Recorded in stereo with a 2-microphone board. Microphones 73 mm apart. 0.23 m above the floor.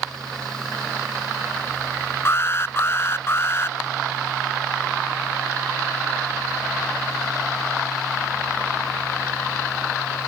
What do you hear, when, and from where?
2.2 s an alarm: 35° left (ahead or behind)